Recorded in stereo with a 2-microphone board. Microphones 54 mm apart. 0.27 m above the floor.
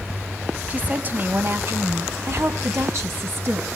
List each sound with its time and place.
0.7 s a woman speaking: 30° right (ahead or behind), 1.4 m; by 3.7 s 50° right (ahead or behind), 2.0 m